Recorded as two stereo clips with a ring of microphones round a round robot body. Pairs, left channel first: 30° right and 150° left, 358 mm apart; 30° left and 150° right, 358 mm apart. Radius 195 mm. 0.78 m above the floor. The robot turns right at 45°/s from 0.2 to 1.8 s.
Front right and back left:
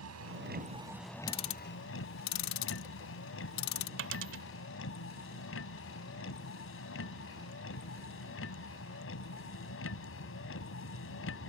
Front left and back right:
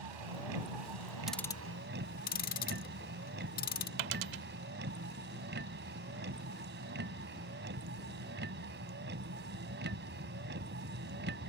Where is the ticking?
60° right; by 3.9 s 40° right.